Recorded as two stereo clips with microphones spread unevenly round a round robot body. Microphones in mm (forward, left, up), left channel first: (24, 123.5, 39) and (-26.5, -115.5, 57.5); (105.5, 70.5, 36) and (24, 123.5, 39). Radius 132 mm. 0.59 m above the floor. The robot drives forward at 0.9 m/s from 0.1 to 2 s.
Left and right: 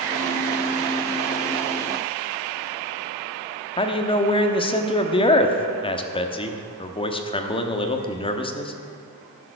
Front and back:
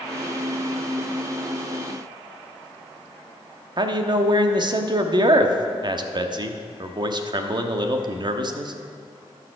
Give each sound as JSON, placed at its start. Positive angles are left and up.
{"t": 3.8, "sound": "a man speaking", "azimuth_deg": 135, "distance_m": 1.1}